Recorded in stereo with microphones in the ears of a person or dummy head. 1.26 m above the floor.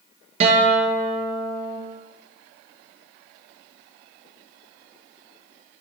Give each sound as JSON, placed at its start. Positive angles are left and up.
{"t": 0.4, "sound": "a guitar", "side_deg": -40, "distance_m": 1.7}